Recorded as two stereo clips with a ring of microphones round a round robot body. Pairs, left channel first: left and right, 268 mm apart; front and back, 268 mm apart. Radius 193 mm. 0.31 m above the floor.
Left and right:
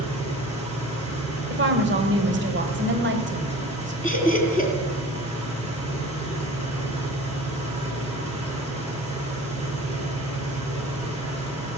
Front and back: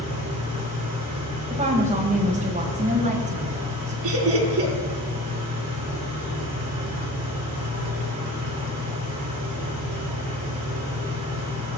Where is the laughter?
160° right, 3.5 m.